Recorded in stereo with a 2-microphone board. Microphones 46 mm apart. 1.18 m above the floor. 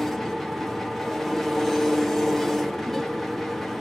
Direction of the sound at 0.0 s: 5° left (ahead or behind).